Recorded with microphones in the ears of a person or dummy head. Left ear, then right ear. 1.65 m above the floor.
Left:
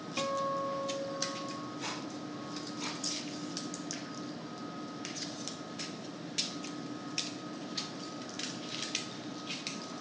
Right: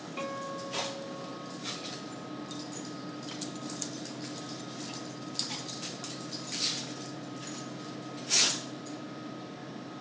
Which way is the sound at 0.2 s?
20° left (ahead or behind).